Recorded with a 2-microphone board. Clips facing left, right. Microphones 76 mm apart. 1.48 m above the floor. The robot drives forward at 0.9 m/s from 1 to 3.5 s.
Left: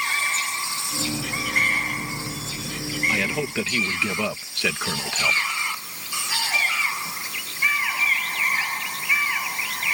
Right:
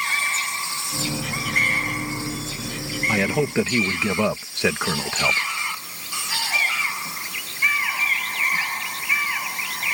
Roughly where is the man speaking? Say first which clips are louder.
Right 6 dB; right.